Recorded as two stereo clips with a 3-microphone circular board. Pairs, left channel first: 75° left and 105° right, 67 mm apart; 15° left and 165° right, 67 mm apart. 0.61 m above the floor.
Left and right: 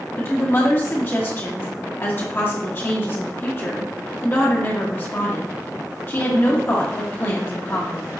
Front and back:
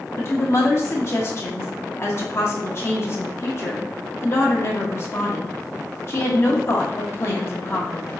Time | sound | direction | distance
0.2 | a woman speaking | 35° left | 1.1 m